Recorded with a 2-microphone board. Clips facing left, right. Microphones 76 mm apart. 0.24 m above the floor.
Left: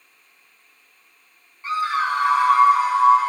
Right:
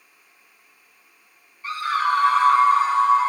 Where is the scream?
30° left (ahead or behind), 1.6 m; by 3.3 s 5° left (ahead or behind), 2.5 m.